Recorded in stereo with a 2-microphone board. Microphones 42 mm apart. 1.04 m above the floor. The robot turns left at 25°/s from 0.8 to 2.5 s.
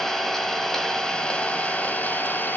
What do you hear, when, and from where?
0.0 s an engine running: 165° left, 1.8 m; by 2.6 s 125° left, 1.8 m